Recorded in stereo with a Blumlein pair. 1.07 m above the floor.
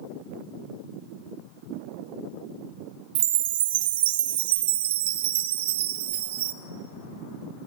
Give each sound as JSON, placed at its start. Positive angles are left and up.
{"t": 3.1, "sound": "a chime", "azimuth_deg": -55, "distance_m": 0.6}